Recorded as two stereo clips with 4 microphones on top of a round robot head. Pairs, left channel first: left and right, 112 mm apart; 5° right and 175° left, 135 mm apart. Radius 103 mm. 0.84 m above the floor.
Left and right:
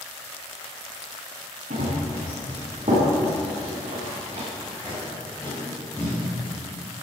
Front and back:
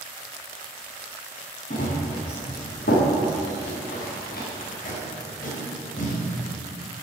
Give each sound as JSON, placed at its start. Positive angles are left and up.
{"t": 1.7, "sound": "running footsteps", "azimuth_deg": -45, "distance_m": 6.0}
{"t": 4.6, "sound": "tape being pulled", "azimuth_deg": 15, "distance_m": 5.0}